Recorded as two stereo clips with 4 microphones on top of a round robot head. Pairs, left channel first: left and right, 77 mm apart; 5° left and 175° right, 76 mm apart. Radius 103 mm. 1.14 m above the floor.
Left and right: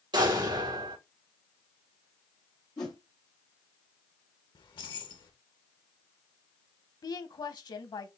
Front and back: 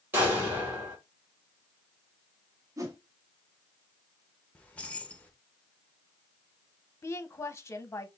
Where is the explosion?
110° right, 2.5 m.